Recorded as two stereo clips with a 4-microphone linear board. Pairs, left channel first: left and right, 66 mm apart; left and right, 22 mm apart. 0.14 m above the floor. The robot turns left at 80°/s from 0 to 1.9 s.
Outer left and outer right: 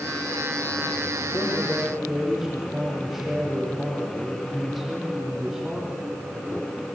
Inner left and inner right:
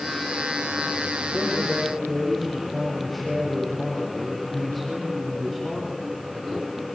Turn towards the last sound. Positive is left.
turn(degrees=-5)